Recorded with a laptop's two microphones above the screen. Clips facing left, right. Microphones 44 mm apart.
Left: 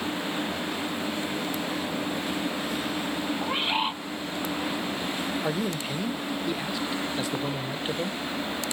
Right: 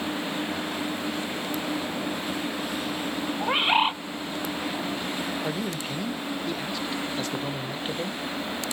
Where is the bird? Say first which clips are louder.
Right 7 dB; 30° right (ahead or behind), 0.7 m.